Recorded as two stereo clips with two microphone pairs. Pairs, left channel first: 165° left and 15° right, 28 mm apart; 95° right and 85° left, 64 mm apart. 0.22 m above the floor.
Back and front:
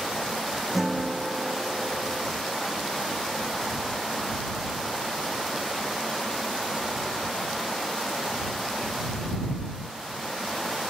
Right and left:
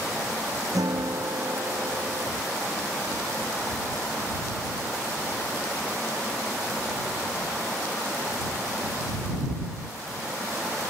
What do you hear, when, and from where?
0.7 s a guitar: 65° left